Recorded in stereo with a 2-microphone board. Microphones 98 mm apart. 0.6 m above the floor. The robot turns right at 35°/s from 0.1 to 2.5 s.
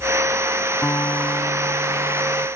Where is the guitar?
20° left; by 2.5 s 75° left.